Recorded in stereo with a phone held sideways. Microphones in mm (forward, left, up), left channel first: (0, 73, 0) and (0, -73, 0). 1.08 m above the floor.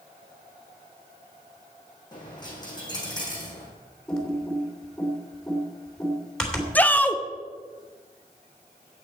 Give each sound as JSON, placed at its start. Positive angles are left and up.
{"t": 2.1, "sound": "a dropped coin", "side_deg": 25, "distance_m": 4.0}
{"t": 4.1, "sound": "typing on a keyboard", "side_deg": 5, "distance_m": 2.5}
{"t": 6.8, "sound": "a shout", "side_deg": 10, "distance_m": 0.7}